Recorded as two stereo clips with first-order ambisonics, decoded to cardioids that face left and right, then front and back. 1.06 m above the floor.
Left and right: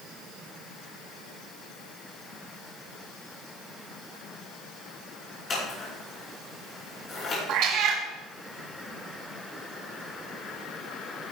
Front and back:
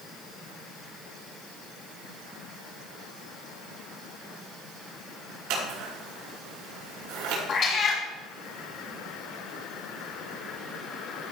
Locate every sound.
5.5 s scissors: 155° left, 4.5 m
7.5 s a cat meowing: 55° right, 1.9 m